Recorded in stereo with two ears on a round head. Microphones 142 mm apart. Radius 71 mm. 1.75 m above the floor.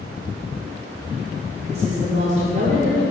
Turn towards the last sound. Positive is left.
turn(degrees=-50)  # may be behind; listen again after turning